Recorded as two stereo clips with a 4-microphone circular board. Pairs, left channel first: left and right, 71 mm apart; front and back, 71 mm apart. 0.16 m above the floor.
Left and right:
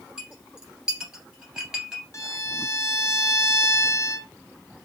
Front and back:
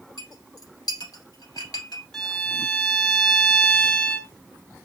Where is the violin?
85° left, 0.8 m.